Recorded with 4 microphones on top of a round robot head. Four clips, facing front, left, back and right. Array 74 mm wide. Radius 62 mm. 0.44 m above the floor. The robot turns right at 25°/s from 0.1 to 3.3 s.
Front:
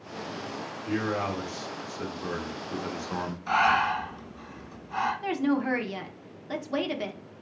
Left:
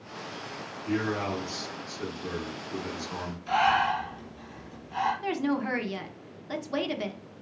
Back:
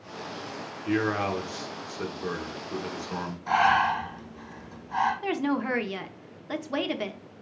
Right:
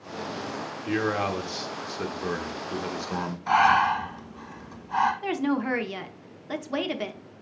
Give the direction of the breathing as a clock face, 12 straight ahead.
3 o'clock.